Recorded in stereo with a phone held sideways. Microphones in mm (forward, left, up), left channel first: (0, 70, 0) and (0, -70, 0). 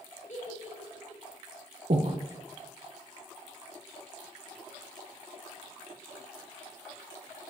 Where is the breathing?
55° right (ahead or behind), 0.7 m.